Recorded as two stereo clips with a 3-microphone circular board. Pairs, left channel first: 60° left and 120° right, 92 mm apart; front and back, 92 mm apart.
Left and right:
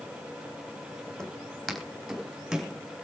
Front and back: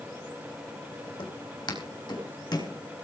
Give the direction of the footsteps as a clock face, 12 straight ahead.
1 o'clock.